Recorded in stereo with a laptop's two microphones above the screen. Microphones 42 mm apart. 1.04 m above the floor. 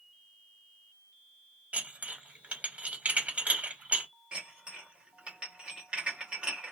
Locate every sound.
1.7 s dishes clattering: 35° right (ahead or behind), 1.0 m
4.3 s dishes clattering: 25° right (ahead or behind), 0.9 m